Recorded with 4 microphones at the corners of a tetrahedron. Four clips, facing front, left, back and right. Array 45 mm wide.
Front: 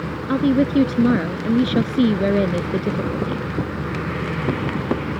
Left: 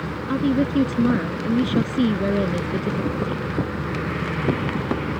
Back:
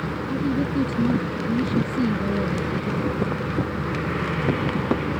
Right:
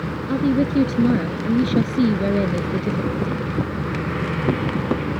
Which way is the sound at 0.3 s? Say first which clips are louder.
Right 1 dB, front 8 dB; 10° left.